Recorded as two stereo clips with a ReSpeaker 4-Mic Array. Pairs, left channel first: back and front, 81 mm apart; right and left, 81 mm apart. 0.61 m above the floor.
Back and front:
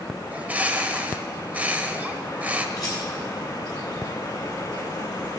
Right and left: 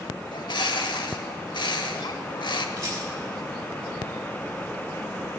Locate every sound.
0.3 s a bird: 70° right, 0.8 m
2.8 s a rattle: 140° left, 4 m